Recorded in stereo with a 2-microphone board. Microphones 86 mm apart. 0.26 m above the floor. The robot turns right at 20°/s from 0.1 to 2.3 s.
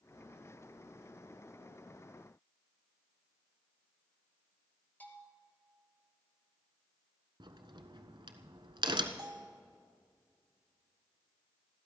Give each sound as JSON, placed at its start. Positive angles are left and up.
{"t": 5.0, "sound": "a bell", "side_deg": 20, "distance_m": 3.0}
{"t": 7.4, "sound": "a crack", "side_deg": -70, "distance_m": 1.1}
{"t": 9.2, "sound": "a bell", "side_deg": -60, "distance_m": 1.2}